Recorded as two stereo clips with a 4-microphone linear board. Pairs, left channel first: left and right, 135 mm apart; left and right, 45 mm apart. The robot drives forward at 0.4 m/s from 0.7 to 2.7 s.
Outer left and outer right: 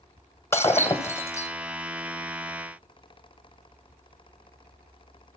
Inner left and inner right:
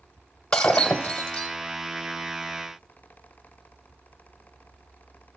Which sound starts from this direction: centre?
Breaking glass, at 0.5 s.